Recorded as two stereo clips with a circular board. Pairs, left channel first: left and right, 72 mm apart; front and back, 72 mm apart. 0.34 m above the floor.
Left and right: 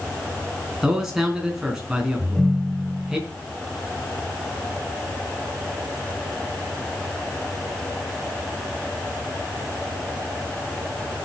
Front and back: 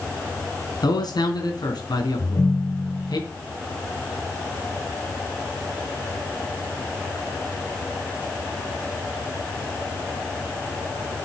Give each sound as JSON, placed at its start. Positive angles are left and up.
{"t": 0.8, "sound": "a man speaking", "azimuth_deg": -5, "distance_m": 3.5}
{"t": 2.2, "sound": "a ringtone", "azimuth_deg": 10, "distance_m": 1.3}